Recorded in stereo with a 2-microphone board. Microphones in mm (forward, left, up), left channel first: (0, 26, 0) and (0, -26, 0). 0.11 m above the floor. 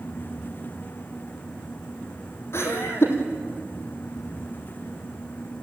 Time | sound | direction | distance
2.5 | laughter | 50° left (ahead or behind) | 4 m